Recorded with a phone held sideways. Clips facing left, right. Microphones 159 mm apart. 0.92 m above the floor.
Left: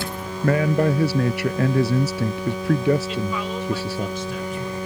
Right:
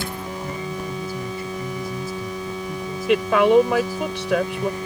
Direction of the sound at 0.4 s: 80° left.